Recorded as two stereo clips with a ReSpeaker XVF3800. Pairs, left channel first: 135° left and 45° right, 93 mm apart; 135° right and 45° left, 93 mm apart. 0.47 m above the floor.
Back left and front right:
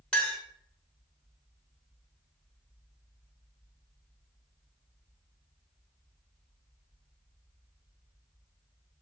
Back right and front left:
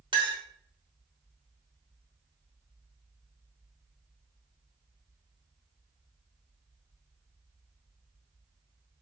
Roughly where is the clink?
Ahead left.